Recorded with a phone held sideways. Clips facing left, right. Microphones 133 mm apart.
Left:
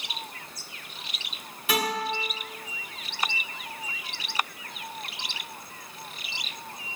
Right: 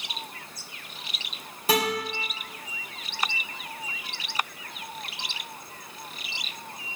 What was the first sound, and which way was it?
A guitar, 40° right (ahead or behind).